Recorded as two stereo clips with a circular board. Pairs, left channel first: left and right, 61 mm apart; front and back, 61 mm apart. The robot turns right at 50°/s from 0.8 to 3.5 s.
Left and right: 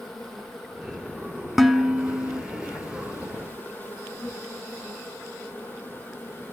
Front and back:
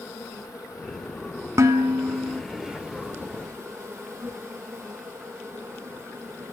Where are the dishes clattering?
Straight behind, 1.2 m; by 2.4 s 135° right, 1.2 m.